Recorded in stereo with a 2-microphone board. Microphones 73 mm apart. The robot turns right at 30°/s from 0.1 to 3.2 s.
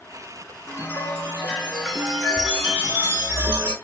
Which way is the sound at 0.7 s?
140° left.